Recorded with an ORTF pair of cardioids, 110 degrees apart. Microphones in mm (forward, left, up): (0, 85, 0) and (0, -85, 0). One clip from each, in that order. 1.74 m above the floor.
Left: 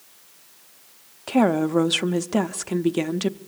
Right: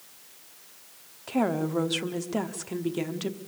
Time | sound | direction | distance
1.3 | a woman speaking | 35° left | 0.9 m